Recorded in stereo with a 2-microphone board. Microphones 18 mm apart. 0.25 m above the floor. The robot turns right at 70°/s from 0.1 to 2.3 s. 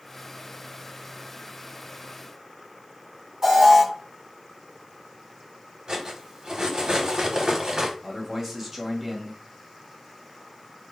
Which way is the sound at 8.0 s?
15° right (ahead or behind).